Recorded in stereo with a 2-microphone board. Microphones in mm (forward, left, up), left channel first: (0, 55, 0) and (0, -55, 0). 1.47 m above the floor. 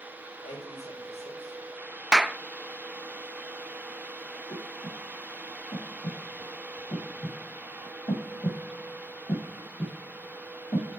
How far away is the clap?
About 0.7 m.